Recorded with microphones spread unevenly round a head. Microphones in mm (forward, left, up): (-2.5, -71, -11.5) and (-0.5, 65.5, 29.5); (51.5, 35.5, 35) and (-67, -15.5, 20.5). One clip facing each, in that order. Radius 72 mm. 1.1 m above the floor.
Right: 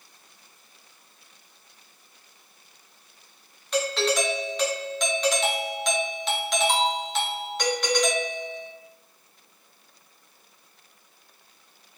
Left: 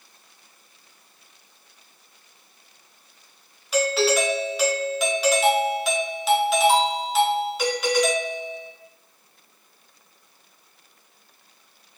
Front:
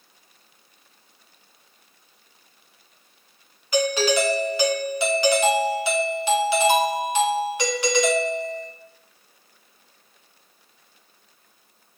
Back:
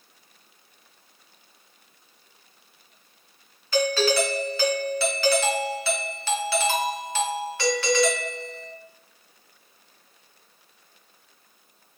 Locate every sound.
3.7 s a doorbell: 35° right, 0.5 m